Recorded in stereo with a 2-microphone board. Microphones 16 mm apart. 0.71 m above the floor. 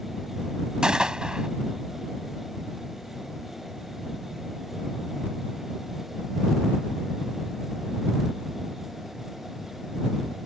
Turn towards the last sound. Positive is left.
turn(degrees=-65)  # may be behind; listen again after turning